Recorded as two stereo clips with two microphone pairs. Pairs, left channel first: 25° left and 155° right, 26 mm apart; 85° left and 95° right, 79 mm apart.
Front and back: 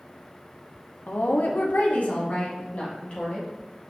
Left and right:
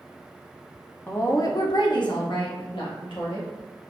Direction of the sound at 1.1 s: 20° left.